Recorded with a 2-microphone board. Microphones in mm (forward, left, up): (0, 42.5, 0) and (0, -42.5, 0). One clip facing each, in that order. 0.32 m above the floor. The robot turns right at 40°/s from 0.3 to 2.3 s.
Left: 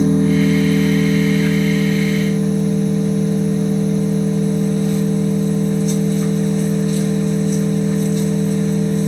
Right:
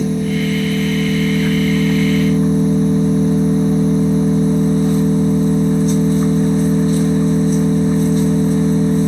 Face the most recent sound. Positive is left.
turn(degrees=-135)